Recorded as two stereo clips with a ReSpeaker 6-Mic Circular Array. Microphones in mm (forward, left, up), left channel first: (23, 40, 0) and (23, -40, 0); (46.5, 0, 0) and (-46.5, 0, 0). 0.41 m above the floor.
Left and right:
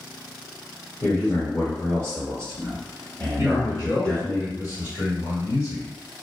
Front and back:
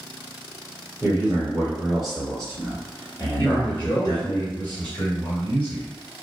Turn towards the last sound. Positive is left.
turn(degrees=60)